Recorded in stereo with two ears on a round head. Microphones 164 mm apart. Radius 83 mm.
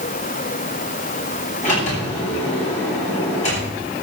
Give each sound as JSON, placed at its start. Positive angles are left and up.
{"t": 1.6, "sound": "a sliding door", "side_deg": 40, "distance_m": 8.0}